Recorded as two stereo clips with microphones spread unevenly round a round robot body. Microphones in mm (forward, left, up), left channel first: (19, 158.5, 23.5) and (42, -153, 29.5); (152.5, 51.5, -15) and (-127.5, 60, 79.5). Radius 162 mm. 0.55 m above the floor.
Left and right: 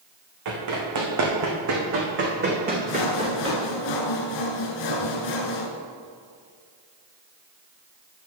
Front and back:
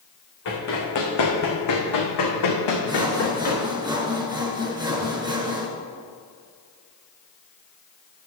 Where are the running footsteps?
60° right, 3 m; by 3.6 s 10° right, 3 m.